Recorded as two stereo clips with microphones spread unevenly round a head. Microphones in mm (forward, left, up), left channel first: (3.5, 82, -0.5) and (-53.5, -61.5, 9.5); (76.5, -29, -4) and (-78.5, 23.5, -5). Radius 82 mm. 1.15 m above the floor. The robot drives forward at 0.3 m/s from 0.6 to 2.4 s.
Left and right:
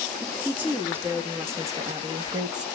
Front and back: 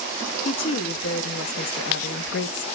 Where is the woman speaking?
30° right, 1.7 m; by 2.6 s 45° right, 1.2 m.